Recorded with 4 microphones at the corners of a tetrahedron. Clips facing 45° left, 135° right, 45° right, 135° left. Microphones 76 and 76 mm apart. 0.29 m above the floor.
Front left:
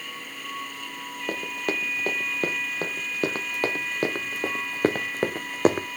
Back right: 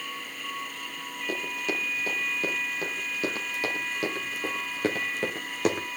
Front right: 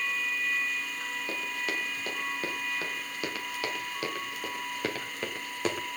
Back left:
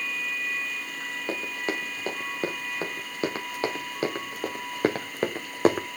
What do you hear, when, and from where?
1.3 s running footsteps: 75° left, 4.5 m; by 5.9 s 95° left, 1.4 m